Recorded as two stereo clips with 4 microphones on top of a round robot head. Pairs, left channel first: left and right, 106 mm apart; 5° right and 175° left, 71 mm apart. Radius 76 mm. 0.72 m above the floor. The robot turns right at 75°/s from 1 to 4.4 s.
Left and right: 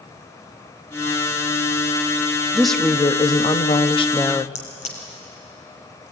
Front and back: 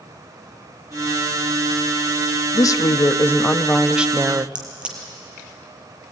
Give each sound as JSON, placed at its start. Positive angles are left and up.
{"t": 2.5, "sound": "a woman speaking", "azimuth_deg": -5, "distance_m": 0.9}
{"t": 4.5, "sound": "a crack", "azimuth_deg": 100, "distance_m": 4.5}